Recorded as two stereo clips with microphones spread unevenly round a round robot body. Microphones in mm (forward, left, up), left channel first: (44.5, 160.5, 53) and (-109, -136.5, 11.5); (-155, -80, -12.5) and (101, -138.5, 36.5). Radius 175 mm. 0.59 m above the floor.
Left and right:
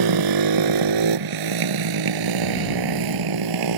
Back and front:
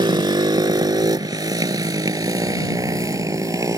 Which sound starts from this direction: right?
A motorcycle, at 0.0 s.